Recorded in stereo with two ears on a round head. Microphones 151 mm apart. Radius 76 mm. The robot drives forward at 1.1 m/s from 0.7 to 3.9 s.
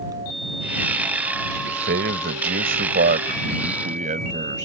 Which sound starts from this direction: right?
A man speaking, at 1.6 s.